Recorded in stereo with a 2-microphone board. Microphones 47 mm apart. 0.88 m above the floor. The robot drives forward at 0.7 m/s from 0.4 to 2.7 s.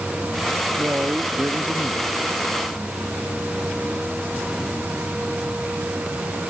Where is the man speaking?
50° right (ahead or behind); by 2.2 s 55° right (ahead or behind).